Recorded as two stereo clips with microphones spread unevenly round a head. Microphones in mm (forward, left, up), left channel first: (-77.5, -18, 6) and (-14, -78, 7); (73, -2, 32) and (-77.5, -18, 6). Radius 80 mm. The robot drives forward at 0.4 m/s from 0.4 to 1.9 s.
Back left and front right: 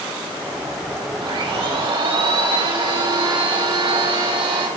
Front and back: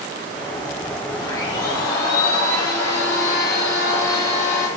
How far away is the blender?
About 4.5 m.